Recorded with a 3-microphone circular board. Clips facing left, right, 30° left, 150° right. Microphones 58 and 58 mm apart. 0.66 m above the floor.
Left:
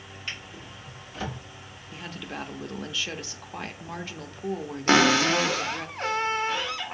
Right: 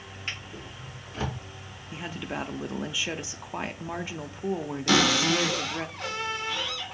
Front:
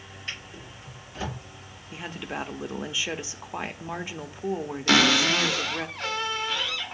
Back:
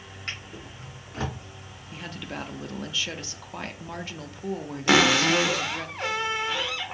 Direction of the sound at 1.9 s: 25° right.